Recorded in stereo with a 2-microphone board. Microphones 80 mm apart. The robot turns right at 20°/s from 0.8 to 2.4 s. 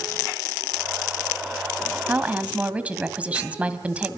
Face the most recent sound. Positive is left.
turn(degrees=-15)  # may be behind; listen again after turning